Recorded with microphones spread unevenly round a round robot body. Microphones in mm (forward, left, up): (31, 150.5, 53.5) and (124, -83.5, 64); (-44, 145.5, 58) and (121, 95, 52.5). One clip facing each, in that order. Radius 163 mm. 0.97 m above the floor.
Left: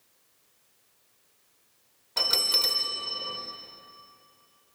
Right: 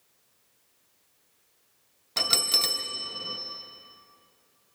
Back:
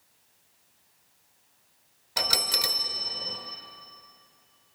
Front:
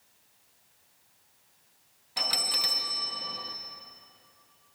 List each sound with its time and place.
2.2 s a bell: 135° right, 0.7 m